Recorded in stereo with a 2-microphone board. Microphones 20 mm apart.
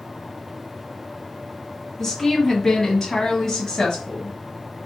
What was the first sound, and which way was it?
A woman speaking, 10° left (ahead or behind).